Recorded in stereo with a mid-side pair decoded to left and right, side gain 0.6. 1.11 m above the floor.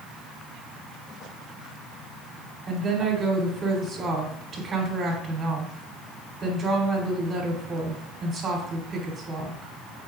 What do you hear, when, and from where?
2.7 s a woman speaking: 35° right, 3.5 m